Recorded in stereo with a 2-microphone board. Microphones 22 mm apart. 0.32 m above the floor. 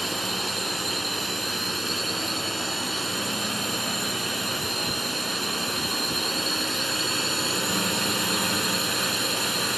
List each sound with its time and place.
0.0 s a drone: centre (ahead or behind)